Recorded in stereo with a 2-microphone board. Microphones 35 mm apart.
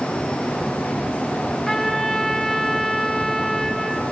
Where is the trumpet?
10° left (ahead or behind), 3.5 m.